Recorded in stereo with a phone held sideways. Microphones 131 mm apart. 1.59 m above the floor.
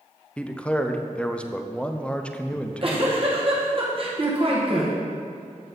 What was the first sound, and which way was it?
A man speaking, 10° left (ahead or behind).